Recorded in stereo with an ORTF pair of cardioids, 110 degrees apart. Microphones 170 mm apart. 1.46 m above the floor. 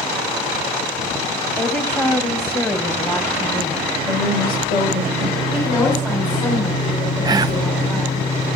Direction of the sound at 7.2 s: 25° right.